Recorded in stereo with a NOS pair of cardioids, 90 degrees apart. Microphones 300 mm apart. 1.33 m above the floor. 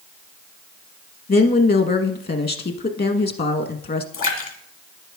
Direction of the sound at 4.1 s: 50° left.